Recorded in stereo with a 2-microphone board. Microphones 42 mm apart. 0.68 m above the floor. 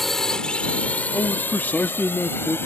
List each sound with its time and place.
0.0 s a drone: 5° left (ahead or behind); by 2.7 s 75° left (ahead or behind)
1.1 s a man speaking: 45° left (ahead or behind)